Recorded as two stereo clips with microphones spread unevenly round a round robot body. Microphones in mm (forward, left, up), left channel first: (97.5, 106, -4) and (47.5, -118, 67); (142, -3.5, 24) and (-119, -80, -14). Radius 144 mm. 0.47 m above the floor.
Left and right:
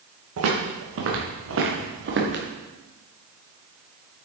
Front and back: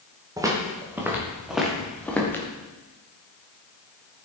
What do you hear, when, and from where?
0.4 s footsteps: 85° right, 4.5 m; by 2.4 s 65° right, 4 m